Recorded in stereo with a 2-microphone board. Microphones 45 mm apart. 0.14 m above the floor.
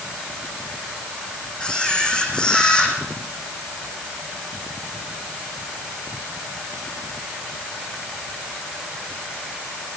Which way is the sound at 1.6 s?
20° left (ahead or behind).